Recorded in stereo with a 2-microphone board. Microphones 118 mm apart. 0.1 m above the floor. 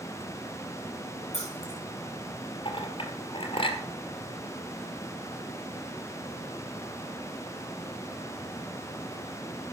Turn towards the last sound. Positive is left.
turn(degrees=50)  # may be behind; listen again after turning